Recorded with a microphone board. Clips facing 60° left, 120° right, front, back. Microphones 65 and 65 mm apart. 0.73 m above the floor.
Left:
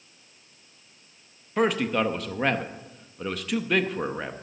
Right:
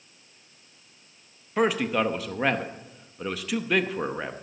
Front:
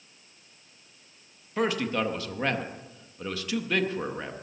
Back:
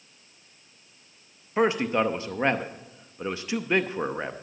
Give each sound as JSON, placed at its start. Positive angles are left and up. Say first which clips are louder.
{"t": 1.6, "sound": "a man speaking", "louder": "even, back 4 dB", "azimuth_deg": 155, "distance_m": 0.6}